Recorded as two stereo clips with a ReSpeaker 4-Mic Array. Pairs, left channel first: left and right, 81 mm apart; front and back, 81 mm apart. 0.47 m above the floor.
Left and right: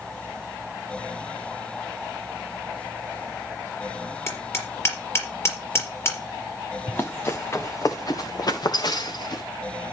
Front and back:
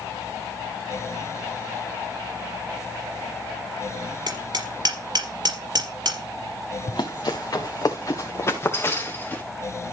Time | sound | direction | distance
4.3 | hammering | 145° left | 4 m
6.9 | running footsteps | 25° left | 2.5 m